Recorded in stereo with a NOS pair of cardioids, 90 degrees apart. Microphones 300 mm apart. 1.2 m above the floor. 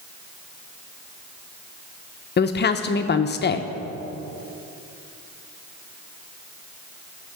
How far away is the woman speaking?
About 0.8 m.